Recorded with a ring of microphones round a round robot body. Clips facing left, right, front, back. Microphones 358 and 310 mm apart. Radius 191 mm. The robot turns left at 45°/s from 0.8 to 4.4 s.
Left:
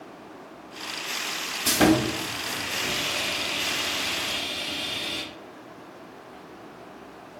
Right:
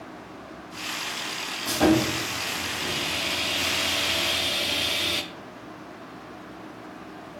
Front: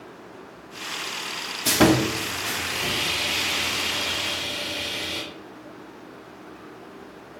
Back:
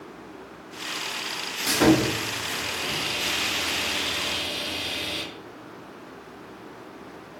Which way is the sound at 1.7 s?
50° left.